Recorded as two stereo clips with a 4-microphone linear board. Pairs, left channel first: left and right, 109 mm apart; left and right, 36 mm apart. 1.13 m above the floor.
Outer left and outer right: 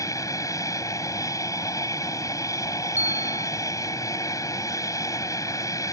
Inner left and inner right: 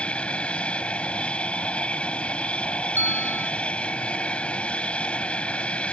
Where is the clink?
I don't hear a clink.